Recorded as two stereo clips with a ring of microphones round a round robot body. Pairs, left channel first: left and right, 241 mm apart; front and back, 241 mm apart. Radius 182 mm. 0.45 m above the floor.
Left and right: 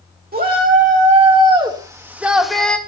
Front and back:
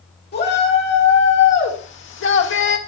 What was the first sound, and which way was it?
A shout, 45° right.